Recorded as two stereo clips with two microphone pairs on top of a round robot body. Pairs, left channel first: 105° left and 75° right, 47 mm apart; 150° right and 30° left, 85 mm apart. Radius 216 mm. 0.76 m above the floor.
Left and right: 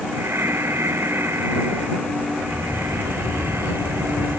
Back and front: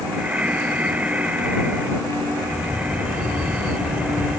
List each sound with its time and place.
0.1 s breathing: 45° right